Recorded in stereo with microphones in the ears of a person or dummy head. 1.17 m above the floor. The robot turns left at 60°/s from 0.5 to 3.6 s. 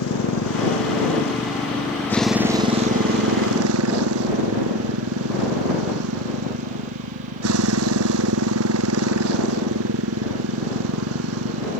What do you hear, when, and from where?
0.0 s a motorcycle: 105° left; by 11.8 s 80° right